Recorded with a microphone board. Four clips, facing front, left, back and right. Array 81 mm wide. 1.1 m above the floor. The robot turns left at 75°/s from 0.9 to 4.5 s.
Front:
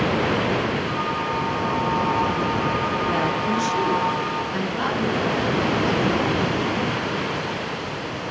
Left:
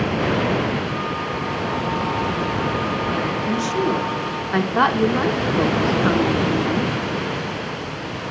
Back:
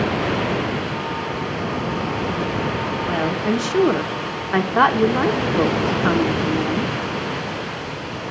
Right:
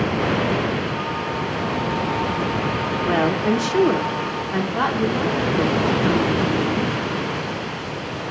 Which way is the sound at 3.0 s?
95° right.